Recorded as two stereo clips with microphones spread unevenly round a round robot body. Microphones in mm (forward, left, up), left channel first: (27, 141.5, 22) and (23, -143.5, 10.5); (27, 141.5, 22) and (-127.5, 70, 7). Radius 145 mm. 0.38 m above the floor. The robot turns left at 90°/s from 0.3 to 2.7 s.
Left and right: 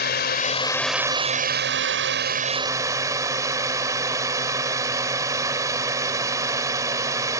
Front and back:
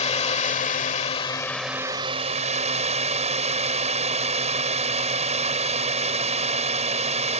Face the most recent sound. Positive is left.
turn(degrees=-165)